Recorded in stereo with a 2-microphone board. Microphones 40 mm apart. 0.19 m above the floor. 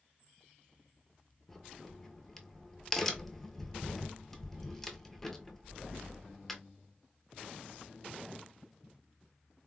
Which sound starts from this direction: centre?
A crack, at 1.5 s.